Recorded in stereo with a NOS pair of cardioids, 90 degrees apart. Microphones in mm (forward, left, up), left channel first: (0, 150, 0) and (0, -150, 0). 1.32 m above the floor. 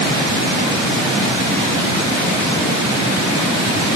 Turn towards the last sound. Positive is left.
No sound to turn to.